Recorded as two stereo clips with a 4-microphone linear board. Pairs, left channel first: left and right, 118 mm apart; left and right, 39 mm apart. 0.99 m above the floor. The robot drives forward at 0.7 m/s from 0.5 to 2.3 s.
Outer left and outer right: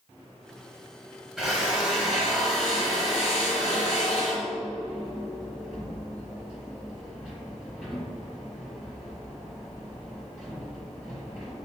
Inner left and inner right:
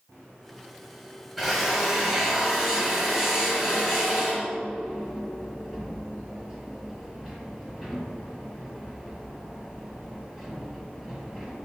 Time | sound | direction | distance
1.4 | a drill | centre (ahead or behind) | 2.5 m